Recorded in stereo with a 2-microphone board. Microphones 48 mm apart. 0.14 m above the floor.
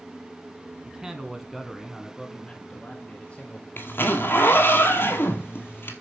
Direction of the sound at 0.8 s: 15° right (ahead or behind).